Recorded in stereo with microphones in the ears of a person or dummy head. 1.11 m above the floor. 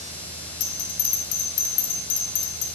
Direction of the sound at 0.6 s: 50° left (ahead or behind).